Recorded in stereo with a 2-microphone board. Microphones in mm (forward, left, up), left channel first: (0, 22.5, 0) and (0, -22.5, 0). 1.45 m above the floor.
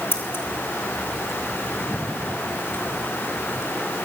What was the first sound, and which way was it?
Scissors, 65° left (ahead or behind).